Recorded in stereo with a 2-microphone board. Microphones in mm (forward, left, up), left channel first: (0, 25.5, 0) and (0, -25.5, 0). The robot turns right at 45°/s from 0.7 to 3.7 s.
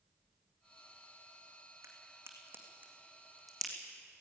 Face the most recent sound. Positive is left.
turn(degrees=10)  # may be behind; listen again after turning